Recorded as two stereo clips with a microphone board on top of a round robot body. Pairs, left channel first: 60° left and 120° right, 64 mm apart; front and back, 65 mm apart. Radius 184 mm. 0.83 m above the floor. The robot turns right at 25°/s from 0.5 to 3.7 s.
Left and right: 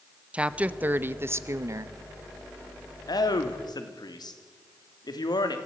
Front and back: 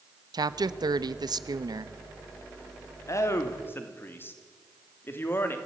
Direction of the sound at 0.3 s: 165° left.